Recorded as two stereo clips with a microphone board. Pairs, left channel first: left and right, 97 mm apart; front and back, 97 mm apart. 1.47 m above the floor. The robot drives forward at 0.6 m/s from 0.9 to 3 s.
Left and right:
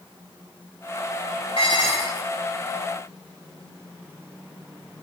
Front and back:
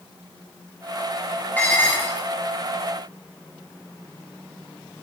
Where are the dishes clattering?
70° left, 6 m; by 2.3 s 75° left, 6 m.